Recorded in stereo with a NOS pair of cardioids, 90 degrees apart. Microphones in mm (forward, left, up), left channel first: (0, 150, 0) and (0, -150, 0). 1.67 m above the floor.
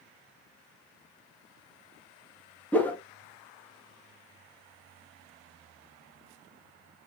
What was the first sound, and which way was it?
A whoosh, 5° left.